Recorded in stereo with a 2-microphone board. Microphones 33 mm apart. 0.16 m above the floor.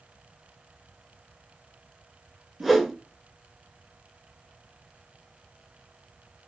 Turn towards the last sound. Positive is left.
turn(degrees=-5)  # may be behind; listen again after turning